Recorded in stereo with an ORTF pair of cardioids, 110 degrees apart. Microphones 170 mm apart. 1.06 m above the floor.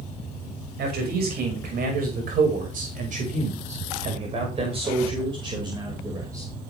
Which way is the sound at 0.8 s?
65° right.